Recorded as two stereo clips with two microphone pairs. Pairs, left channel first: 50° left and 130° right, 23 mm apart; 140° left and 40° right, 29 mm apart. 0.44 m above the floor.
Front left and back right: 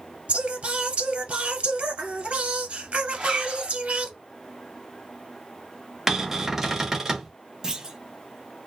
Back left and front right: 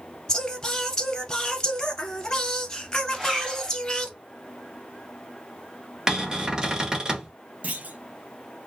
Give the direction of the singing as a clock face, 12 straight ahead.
5 o'clock.